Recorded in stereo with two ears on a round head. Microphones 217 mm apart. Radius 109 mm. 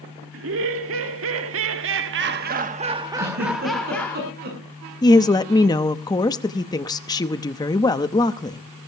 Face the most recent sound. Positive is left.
turn(degrees=15)  # may be behind; listen again after turning